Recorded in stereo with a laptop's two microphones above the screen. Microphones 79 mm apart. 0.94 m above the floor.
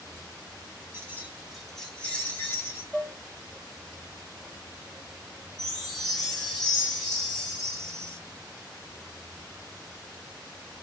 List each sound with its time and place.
0.9 s keys jangling: 35° right (ahead or behind), 1.4 m; by 2.8 s 35° left (ahead or behind), 2.5 m
2.9 s dishes clattering: 5° left (ahead or behind), 0.6 m
5.6 s a chime: 5° left (ahead or behind), 3.5 m